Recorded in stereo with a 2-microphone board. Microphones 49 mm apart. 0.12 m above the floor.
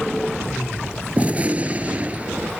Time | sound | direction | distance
1.2 | a gunshot | 30° right (ahead or behind) | ?